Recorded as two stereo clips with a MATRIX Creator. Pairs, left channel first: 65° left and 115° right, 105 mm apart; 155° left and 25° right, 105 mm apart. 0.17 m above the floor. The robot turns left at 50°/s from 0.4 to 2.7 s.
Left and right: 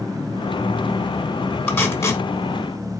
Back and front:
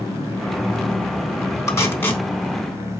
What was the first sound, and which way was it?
Tape being pulled, 125° left.